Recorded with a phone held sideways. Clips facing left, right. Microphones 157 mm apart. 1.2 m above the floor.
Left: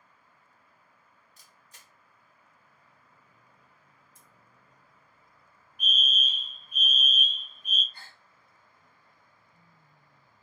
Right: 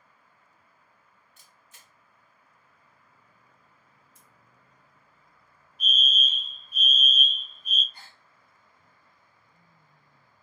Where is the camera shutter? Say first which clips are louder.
Even; 35° left (ahead or behind), 0.9 m.